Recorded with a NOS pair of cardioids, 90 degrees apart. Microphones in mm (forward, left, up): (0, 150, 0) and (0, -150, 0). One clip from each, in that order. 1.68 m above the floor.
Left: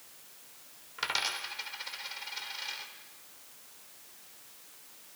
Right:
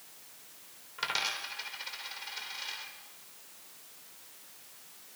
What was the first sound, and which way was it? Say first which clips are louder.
A dropped coin: even; 10° left.